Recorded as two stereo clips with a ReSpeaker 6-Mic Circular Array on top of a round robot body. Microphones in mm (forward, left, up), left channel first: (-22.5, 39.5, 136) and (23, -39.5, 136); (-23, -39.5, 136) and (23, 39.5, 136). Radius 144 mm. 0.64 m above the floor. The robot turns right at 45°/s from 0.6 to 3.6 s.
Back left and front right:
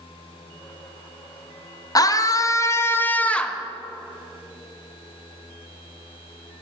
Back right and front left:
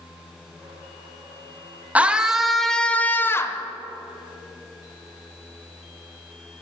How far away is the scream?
About 0.6 m.